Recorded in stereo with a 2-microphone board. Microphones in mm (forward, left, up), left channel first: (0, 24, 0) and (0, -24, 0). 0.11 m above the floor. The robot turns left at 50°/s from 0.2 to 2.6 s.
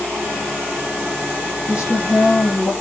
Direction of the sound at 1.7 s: 120° left.